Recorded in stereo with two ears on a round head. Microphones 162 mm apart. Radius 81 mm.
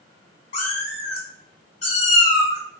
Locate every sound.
0.5 s a cat meowing: 40° left (ahead or behind), 1.6 m